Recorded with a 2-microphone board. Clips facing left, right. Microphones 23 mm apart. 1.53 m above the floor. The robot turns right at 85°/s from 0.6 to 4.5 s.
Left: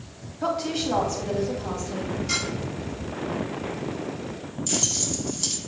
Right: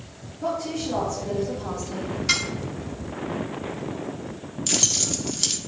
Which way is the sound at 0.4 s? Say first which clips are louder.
Left 1 dB; 90° left.